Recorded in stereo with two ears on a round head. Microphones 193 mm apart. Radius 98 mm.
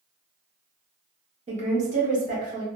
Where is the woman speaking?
30° right (ahead or behind), 0.7 m; by 2.6 s 35° right (ahead or behind), 1.4 m.